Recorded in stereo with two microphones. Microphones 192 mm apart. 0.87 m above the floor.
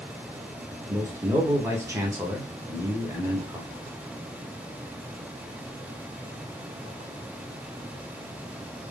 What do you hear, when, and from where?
0.9 s a man speaking: 15° right (ahead or behind), 0.9 m